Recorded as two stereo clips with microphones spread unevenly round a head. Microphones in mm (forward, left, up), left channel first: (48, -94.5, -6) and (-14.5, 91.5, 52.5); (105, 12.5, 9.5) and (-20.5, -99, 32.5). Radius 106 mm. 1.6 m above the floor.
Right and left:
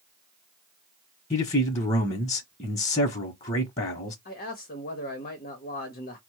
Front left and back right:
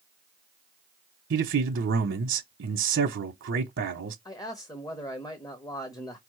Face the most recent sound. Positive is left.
turn(degrees=-25)